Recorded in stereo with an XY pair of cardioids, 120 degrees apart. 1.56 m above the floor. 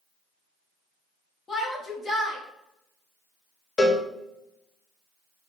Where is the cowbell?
35° left, 0.7 m.